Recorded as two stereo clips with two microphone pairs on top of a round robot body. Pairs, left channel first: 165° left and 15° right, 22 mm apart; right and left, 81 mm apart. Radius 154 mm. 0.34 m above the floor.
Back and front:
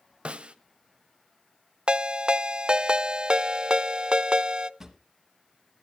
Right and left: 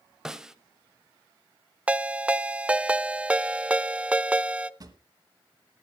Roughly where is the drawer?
Ahead left.